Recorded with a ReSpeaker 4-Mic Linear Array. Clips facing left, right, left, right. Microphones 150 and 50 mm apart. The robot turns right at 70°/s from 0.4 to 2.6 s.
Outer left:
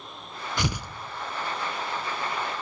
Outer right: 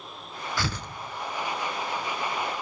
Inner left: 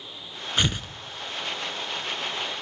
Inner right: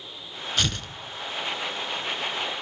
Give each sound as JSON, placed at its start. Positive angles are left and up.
{"t": 0.6, "sound": "tearing paper", "side_deg": 20, "distance_m": 0.6}